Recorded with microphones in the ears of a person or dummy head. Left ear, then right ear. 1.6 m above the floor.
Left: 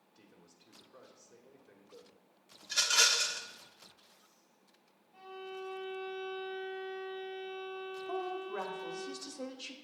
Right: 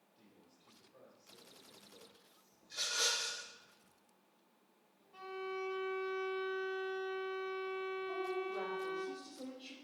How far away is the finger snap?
I don't hear a finger snap.